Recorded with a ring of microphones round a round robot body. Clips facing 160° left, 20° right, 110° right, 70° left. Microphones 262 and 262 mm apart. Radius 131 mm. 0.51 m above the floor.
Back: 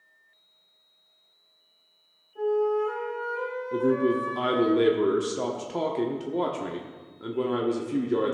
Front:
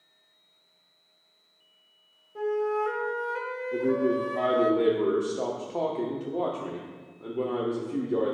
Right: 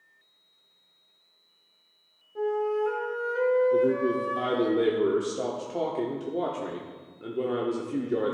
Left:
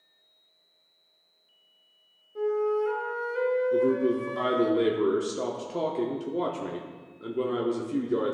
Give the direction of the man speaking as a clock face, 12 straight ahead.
7 o'clock.